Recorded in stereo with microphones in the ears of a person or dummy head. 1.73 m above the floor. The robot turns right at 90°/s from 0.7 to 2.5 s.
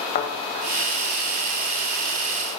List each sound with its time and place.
0.1 s a thud: 45° left (ahead or behind), 2.5 m